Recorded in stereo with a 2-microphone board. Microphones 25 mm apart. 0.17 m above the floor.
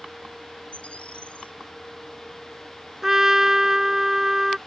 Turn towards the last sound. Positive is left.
turn(degrees=-20)  # may be behind; listen again after turning